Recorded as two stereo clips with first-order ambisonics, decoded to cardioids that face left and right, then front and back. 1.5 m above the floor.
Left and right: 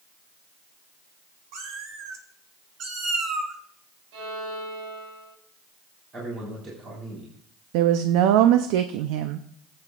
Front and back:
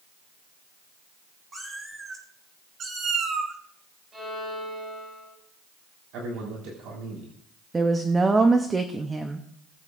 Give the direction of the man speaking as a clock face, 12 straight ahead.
5 o'clock.